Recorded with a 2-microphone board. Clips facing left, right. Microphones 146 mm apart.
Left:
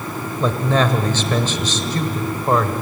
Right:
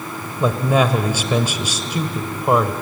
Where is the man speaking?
10° right (ahead or behind), 1.4 m.